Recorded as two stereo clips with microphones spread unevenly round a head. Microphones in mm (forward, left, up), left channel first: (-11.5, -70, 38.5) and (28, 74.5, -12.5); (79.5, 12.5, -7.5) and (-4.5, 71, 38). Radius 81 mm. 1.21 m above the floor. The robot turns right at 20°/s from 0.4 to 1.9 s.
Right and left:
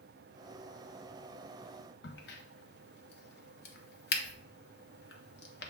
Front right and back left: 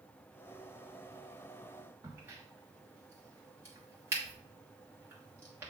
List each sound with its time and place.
2.0 s a crack: 135° right, 1.0 m